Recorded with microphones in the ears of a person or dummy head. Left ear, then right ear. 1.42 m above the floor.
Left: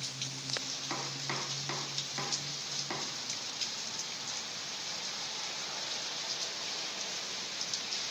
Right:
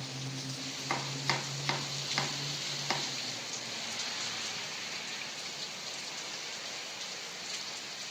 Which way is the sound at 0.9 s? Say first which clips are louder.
Right 6 dB; 55° right (ahead or behind).